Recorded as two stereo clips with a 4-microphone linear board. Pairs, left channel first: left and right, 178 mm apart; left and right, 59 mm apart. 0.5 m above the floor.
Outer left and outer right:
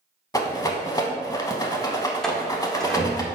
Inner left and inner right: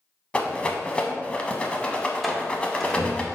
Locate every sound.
0.3 s a rattle: 20° left (ahead or behind), 0.6 m
2.2 s a door slam: 5° left (ahead or behind), 0.6 m